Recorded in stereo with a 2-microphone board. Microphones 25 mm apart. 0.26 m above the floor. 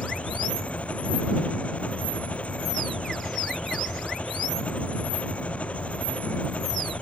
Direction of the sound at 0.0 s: 65° left (ahead or behind).